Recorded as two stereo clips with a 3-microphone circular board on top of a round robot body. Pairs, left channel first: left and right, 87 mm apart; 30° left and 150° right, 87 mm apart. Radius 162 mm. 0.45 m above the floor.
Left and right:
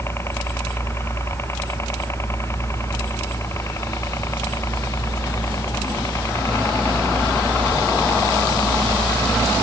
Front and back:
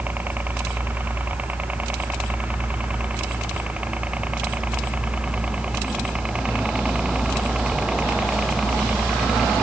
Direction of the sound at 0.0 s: 145° left.